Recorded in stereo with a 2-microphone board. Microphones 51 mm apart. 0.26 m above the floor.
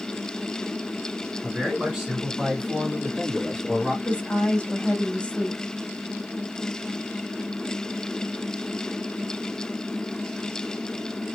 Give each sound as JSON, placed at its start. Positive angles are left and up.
{"t": 1.4, "sound": "a man speaking", "side_deg": -15, "distance_m": 3.0}
{"t": 4.0, "sound": "a woman speaking", "side_deg": 25, "distance_m": 1.2}